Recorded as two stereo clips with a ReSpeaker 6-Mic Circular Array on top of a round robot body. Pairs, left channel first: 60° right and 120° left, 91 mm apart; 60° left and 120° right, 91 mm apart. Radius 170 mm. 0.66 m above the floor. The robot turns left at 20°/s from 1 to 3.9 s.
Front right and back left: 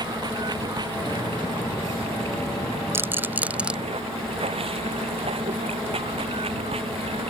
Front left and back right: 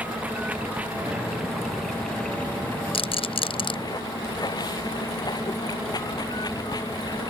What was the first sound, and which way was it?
Running water, 165° left.